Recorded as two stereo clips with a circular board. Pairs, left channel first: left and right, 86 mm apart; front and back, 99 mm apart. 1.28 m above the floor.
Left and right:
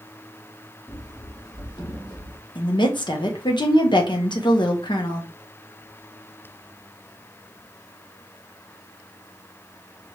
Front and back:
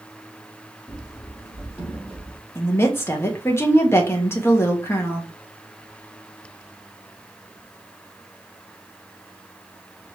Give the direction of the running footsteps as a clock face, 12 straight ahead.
10 o'clock.